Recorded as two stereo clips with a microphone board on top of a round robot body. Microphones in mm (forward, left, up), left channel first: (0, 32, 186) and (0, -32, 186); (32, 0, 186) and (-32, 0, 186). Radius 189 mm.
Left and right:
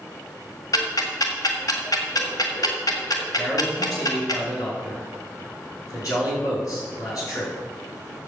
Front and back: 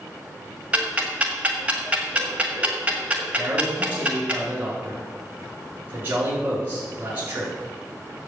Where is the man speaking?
120° left, 5 m.